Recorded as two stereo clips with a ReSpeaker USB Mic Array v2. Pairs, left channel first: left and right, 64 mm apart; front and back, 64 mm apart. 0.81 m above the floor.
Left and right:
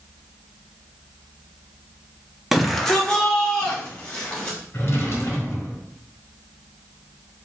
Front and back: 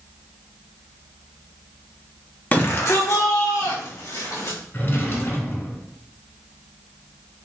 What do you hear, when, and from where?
2.5 s a shout: 15° right, 0.7 m; by 4.6 s 20° left, 2.5 m
4.7 s a drawer: 45° left, 1.3 m